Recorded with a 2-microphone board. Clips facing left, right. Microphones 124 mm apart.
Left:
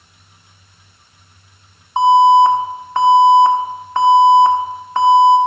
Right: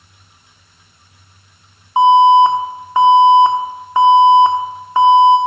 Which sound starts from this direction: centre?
An alarm, at 2.0 s.